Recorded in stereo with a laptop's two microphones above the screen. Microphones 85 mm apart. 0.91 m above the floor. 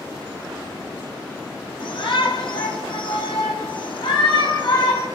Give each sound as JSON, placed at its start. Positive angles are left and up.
{"t": 1.8, "sound": "a shout", "side_deg": 75, "distance_m": 7.0}